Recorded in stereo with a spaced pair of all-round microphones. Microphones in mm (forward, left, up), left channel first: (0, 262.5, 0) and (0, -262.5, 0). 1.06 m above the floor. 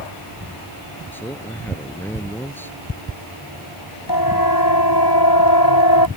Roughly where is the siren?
Left.